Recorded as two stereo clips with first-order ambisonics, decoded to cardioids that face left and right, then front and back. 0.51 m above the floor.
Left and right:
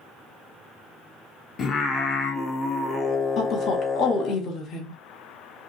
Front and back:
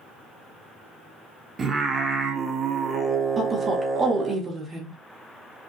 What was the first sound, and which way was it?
Singing, 135° left.